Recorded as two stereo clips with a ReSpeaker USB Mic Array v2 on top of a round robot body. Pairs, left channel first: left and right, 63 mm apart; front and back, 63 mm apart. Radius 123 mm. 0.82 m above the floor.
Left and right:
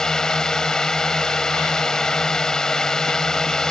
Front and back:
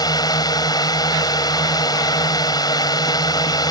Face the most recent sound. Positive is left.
turn(degrees=10)